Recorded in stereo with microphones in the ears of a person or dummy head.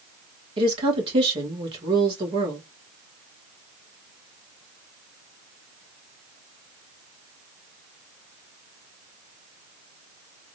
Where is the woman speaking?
25° right (ahead or behind), 1.9 m.